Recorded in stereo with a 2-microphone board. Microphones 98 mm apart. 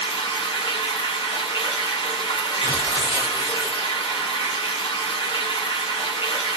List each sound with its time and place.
0.0 s running water: 70° left (ahead or behind), 0.9 m
2.6 s tearing paper: 60° left (ahead or behind), 1.3 m